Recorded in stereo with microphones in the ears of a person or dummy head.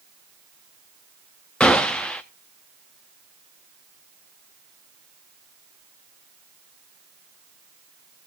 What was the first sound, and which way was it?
A gunshot, 5° left (ahead or behind).